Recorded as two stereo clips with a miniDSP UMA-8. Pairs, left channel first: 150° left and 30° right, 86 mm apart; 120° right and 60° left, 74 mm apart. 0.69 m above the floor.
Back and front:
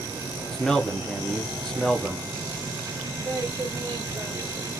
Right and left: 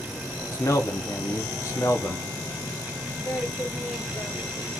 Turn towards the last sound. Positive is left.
turn(degrees=-65)